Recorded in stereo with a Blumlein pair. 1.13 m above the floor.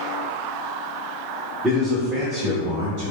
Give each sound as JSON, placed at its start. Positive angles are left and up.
{"t": 1.6, "sound": "a man speaking", "azimuth_deg": 0, "distance_m": 1.3}